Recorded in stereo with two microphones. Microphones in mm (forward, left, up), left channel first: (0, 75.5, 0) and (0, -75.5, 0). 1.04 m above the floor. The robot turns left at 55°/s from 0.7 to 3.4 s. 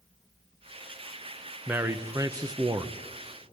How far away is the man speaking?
About 0.7 m.